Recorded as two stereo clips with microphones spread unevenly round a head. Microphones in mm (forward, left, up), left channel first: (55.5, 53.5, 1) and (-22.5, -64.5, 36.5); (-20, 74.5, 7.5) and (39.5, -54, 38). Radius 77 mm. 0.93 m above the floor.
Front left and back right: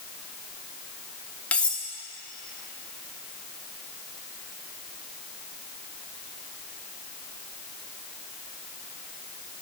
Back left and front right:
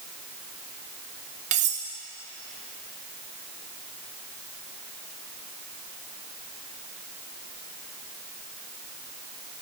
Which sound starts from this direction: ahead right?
Cutlery clinking, at 1.5 s.